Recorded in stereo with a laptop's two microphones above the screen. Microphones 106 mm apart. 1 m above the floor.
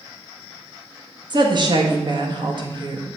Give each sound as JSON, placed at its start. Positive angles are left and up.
{"t": 1.3, "sound": "a woman speaking", "side_deg": -45, "distance_m": 1.4}